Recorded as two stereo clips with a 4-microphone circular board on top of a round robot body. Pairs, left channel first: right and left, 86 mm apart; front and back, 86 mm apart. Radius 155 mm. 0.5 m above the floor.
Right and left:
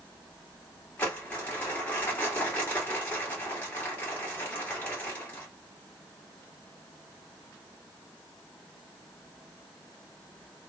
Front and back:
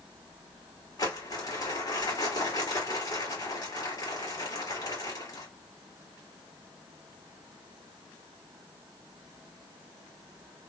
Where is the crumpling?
25° right, 2.5 m.